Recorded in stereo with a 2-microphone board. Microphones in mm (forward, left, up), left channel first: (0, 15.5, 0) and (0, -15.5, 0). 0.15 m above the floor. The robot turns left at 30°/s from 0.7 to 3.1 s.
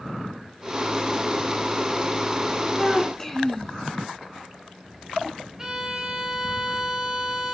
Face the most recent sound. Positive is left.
turn(degrees=-15)  # may be behind; listen again after turning